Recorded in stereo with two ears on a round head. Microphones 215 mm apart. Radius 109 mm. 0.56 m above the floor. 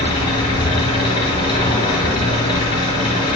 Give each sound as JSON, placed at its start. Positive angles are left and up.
{"t": 0.0, "sound": "an engine running", "side_deg": 20, "distance_m": 4.0}